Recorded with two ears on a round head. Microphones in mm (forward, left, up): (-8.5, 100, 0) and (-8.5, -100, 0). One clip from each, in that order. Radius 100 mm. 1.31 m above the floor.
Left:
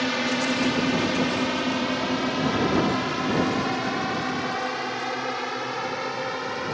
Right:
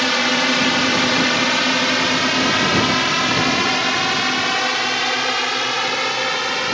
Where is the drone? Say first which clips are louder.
Right 8 dB; 35° right (ahead or behind); by 6.7 s 75° right (ahead or behind).